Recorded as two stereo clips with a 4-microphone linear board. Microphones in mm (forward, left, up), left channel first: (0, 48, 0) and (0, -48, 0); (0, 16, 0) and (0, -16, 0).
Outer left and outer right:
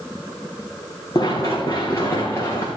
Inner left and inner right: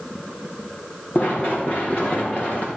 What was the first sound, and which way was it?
Running footsteps, 45° left (ahead or behind).